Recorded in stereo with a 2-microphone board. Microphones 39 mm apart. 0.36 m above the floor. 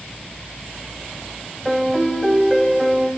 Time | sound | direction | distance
1.6 | a piano | 5° left (ahead or behind) | 1.2 m